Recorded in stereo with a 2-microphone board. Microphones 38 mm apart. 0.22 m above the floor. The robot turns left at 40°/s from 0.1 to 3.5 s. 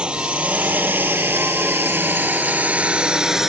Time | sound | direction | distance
0.0 | a drone | 25° right (ahead or behind) | ?